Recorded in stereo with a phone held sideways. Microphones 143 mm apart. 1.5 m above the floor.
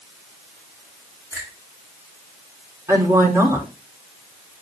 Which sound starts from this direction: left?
A finger snap, at 1.3 s.